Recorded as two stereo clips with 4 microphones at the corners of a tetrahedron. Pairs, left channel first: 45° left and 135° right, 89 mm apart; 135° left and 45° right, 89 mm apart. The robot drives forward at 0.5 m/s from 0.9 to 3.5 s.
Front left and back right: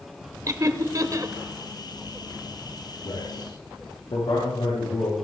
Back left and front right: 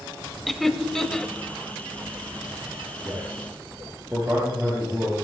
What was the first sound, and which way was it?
Laughter, 140° right.